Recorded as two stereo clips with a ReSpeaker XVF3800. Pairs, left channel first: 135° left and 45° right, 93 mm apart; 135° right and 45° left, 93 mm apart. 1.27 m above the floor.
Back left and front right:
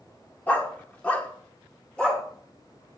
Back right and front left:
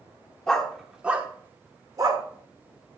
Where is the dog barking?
160° left, 0.9 m; by 2.2 s 55° left, 1.1 m.